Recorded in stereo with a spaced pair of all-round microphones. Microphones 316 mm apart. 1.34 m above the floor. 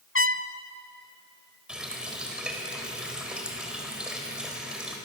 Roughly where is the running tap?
Centre.